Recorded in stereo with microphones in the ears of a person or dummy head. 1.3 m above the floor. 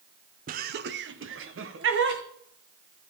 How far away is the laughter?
About 0.8 m.